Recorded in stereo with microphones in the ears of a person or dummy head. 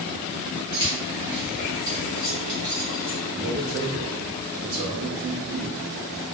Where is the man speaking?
45° right (ahead or behind), 0.6 m.